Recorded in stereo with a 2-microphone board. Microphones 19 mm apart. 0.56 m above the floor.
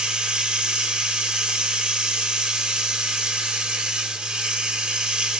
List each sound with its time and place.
0.0 s running water: 65° right (ahead or behind), 1.4 m